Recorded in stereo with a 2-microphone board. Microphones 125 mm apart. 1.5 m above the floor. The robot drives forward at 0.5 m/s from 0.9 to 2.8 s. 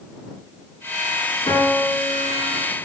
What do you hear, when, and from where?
1.5 s a piano: 45° left (ahead or behind), 3 m; by 2.7 s 50° left (ahead or behind), 2.5 m